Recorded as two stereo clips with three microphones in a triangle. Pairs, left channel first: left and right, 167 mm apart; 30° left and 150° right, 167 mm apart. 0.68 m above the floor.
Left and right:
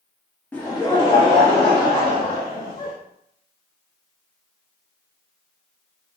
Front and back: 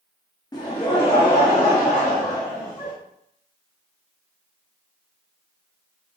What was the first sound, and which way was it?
Laughter, 25° left.